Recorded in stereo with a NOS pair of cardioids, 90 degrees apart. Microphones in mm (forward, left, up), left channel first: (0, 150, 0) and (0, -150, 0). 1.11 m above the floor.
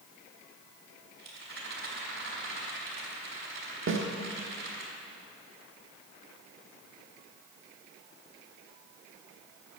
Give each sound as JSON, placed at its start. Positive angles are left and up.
{"t": 1.2, "sound": "a rattle", "azimuth_deg": -40, "distance_m": 4.5}
{"t": 3.9, "sound": "a snare drum", "azimuth_deg": -40, "distance_m": 1.4}